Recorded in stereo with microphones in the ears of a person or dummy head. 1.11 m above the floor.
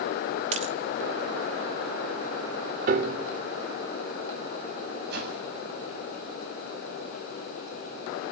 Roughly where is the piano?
Right.